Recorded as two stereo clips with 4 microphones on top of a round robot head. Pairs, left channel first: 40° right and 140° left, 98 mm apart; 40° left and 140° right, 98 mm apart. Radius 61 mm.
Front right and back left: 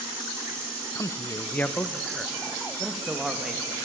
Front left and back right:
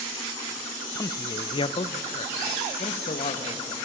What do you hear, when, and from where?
0.9 s a man speaking: 5° right, 0.8 m; by 3.7 s 55° left, 2.5 m